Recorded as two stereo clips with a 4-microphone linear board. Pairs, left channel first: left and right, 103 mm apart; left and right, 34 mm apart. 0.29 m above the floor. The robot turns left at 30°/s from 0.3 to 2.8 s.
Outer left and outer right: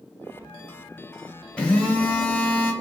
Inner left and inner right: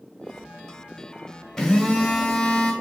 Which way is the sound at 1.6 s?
10° left (ahead or behind).